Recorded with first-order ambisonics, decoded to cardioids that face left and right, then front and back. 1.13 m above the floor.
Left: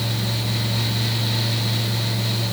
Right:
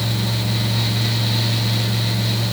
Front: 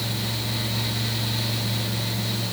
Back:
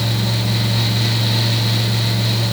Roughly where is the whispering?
I don't hear whispering.